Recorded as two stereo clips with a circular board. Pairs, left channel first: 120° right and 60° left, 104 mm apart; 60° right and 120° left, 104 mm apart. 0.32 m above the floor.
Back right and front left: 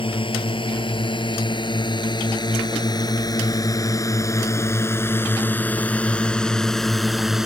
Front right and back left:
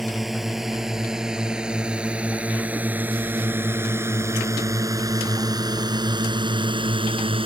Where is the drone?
150° right; by 7.5 s 145° left.